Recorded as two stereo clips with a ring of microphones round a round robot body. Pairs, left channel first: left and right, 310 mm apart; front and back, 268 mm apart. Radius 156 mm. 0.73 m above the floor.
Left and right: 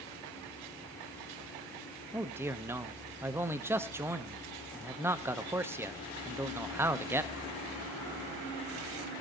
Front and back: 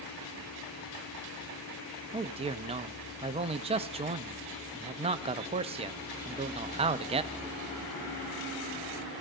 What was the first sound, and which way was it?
A man speaking, 160° right.